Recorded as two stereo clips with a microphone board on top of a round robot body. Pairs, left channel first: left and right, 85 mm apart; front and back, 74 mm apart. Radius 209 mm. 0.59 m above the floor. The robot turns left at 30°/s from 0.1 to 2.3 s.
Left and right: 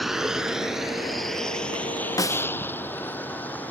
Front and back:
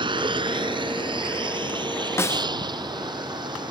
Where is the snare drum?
50° left; by 2.5 s 45° left.